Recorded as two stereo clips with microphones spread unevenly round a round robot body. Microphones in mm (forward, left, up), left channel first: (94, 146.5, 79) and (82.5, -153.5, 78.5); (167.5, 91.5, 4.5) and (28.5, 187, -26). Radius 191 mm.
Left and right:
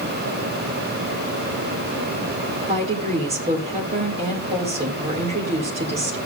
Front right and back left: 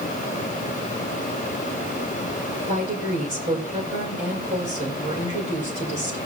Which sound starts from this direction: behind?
A woman speaking, at 2.7 s.